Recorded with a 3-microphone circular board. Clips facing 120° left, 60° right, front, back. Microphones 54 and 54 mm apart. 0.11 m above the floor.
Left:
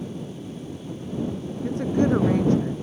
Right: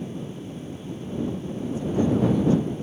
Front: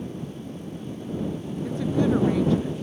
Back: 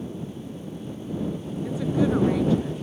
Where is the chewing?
I don't hear chewing.